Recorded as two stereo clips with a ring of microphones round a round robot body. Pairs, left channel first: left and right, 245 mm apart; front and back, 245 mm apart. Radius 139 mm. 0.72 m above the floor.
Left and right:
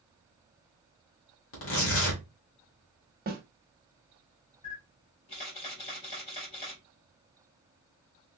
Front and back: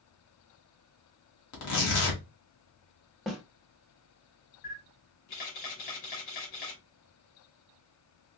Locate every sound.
1.5 s tearing paper: 40° left, 1.3 m
3.3 s a snare drum: 90° right, 1.3 m
4.6 s a camera shutter: 20° left, 2.5 m